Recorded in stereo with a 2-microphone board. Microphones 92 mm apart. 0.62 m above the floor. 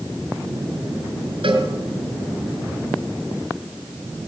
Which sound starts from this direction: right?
A cowbell, at 1.4 s.